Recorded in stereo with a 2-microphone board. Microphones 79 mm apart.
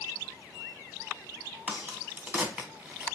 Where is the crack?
25° right (ahead or behind), 0.8 m.